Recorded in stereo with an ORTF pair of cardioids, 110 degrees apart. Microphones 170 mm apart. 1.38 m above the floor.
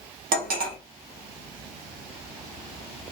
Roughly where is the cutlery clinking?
Ahead right.